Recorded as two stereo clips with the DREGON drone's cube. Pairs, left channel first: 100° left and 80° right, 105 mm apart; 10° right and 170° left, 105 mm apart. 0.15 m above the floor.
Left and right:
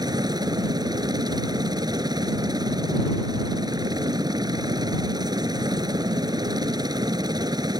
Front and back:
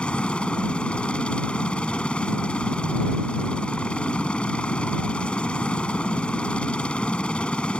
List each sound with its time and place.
0.0 s a helicopter: 85° right